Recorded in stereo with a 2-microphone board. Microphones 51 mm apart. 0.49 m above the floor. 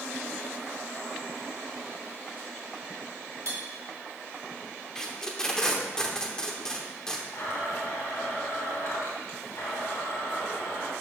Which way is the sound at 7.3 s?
70° left (ahead or behind).